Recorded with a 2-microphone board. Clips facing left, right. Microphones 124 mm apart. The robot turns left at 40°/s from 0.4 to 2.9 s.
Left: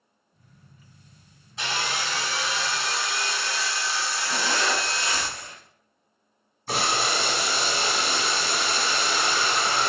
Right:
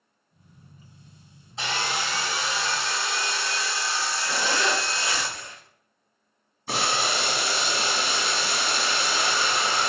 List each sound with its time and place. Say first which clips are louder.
1.6 s sawing: right 1 dB; 25° right (ahead or behind), 1.2 m; by 5.2 s 20° right (ahead or behind), 1.2 m
4.2 s a zipper: right 1 dB; 25° right (ahead or behind), 1.7 m
6.7 s boiling: left 1 dB; centre (ahead or behind), 0.9 m